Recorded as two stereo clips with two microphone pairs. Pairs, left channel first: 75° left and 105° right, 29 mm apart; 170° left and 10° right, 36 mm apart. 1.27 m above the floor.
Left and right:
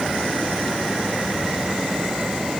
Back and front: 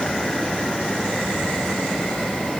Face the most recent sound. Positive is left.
No sound to turn to.